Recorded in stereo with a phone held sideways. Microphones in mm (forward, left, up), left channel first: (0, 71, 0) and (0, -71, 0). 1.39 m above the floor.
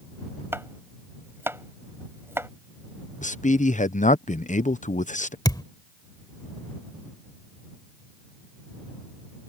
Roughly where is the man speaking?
Left.